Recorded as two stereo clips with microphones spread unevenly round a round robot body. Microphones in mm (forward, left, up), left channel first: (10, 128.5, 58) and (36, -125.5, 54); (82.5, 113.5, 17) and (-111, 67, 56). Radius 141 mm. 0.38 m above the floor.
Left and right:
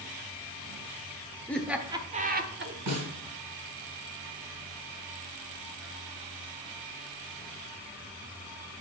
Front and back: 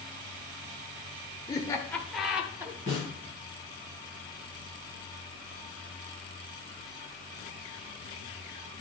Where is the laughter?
20° left, 1.2 m; by 2.8 s 80° right, 1.6 m.